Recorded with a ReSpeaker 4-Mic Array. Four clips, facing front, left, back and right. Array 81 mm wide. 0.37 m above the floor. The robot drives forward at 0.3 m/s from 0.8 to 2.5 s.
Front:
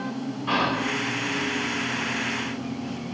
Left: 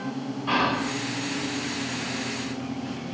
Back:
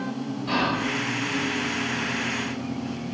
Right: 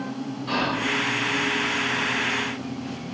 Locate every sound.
0.5 s whispering: 25° left, 1.1 m